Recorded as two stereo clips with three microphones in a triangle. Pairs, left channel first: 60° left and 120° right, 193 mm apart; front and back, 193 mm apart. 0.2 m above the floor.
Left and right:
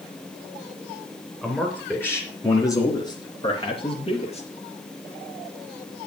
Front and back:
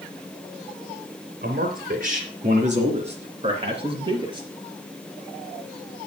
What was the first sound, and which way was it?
A man speaking, 145° left.